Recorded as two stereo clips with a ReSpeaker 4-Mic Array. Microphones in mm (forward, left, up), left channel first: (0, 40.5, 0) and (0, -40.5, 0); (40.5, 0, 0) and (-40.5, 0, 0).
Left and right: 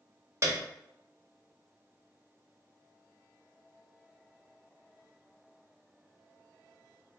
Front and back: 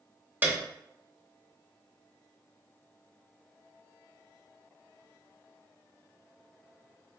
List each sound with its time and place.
0.4 s a piano: 120° right, 0.6 m